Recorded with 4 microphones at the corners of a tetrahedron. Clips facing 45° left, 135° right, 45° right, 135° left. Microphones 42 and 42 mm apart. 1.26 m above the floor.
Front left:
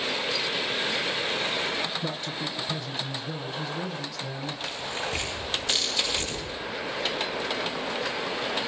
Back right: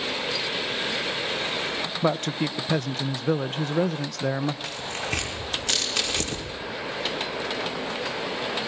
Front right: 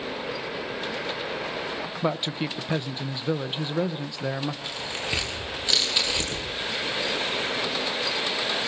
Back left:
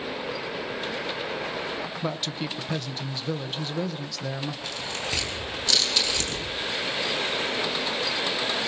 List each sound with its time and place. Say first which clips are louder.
2.0 s a man speaking: back right 7 dB, front right 7 dB; 115° right, 0.8 m
4.7 s tearing paper: back right 1 dB, front right 1 dB; 115° right, 6 m